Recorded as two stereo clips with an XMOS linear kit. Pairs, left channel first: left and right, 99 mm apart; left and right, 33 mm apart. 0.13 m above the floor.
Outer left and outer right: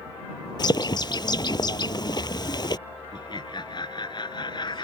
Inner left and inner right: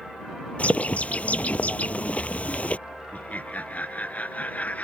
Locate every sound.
0.6 s a bird: 45° left (ahead or behind)
3.1 s laughter: 45° left (ahead or behind)